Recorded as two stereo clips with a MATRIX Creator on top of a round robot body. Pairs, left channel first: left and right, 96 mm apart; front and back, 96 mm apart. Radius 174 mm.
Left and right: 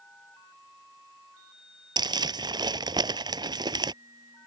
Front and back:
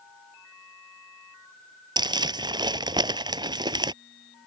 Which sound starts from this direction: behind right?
Crumpling, at 2.0 s.